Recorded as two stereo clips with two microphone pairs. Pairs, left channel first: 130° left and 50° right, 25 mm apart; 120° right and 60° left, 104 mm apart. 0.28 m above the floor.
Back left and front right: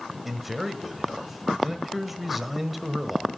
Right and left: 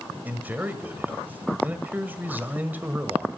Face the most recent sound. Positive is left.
turn(degrees=20)